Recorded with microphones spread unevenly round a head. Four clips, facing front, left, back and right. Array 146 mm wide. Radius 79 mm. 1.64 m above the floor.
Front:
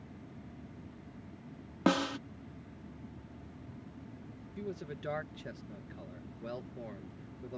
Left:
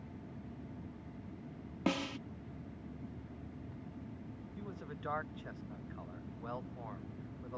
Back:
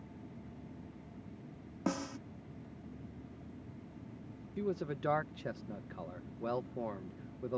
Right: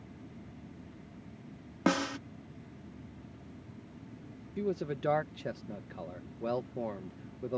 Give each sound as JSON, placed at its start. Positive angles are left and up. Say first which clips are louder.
{"t": 1.9, "sound": "a snare drum", "louder": "right 6 dB, front 7 dB", "azimuth_deg": -35}
{"t": 4.6, "sound": "a man speaking", "louder": "right 15 dB, back 5 dB", "azimuth_deg": -125}